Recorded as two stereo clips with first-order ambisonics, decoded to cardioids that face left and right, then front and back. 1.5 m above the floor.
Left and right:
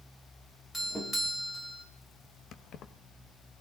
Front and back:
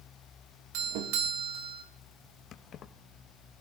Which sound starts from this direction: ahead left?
Keys jangling, at 2.5 s.